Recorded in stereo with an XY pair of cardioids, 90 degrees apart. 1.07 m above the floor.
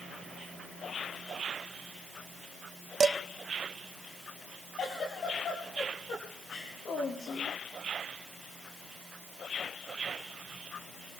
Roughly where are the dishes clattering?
Ahead right.